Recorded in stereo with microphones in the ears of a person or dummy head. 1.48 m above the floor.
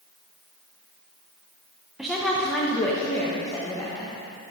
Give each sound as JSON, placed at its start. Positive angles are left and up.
{"t": 2.0, "sound": "a woman speaking", "side_deg": 0, "distance_m": 0.9}